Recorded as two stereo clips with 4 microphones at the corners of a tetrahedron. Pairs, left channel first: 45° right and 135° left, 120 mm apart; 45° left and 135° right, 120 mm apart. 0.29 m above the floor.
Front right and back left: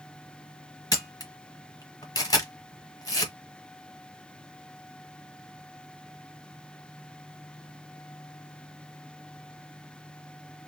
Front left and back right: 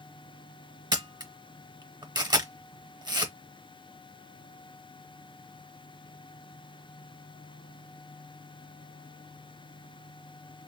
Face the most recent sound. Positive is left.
turn(degrees=-90)